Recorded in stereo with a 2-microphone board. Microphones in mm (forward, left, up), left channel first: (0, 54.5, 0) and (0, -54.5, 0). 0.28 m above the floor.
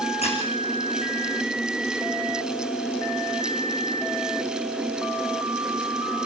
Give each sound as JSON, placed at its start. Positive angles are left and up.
{"t": 0.2, "sound": "a squeak", "side_deg": 70, "distance_m": 6.0}